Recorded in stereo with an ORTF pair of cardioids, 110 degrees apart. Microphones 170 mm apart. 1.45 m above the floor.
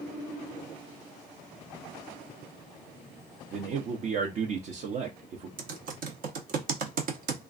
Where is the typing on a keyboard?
65° right, 0.9 m.